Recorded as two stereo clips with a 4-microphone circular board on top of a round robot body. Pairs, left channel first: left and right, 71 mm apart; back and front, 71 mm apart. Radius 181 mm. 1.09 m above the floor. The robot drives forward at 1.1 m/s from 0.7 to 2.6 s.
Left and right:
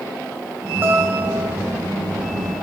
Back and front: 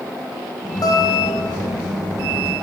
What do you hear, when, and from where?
0.8 s a guitar: 150° right, 3.5 m; by 1.8 s 155° right, 4.5 m